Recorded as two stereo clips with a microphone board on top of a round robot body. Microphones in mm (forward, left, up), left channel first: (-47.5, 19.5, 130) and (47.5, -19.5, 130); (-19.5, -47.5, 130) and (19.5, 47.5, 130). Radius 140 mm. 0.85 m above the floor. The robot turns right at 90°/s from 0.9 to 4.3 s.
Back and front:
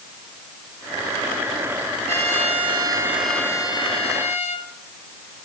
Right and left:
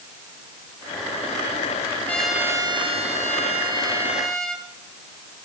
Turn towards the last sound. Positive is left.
turn(degrees=160)